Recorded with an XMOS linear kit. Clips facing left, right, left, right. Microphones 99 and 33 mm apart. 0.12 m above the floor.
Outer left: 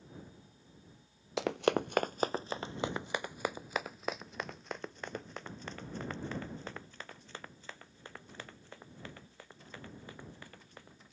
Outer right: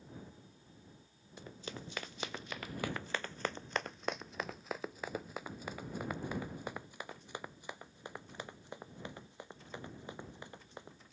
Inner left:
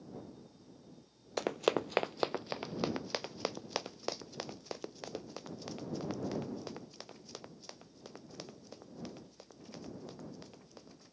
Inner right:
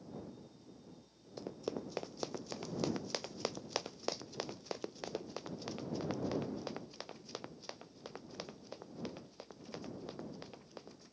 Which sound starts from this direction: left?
Running footsteps, at 1.4 s.